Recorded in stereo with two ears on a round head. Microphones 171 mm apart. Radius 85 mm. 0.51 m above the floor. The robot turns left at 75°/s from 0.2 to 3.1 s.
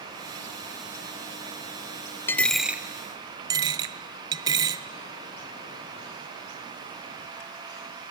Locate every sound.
2.3 s a dropped coin: 10° left (ahead or behind), 0.5 m; by 4.8 s 20° right (ahead or behind), 0.5 m